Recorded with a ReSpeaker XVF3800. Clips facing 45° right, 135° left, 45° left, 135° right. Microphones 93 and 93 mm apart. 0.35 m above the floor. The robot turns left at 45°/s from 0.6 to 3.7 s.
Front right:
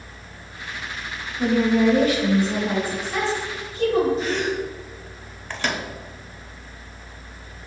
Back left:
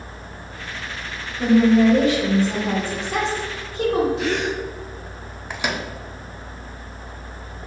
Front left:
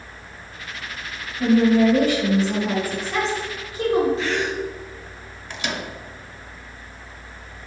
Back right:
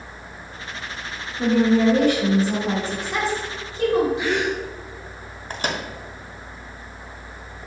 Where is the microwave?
150° right, 0.8 m.